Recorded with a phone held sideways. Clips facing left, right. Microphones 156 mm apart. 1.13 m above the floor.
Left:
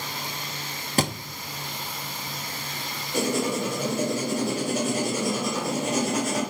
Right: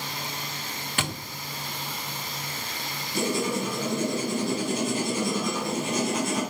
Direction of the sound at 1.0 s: 35° left (ahead or behind).